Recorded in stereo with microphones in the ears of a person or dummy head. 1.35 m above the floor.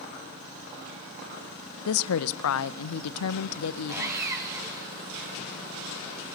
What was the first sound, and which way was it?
A woman speaking, 85° left.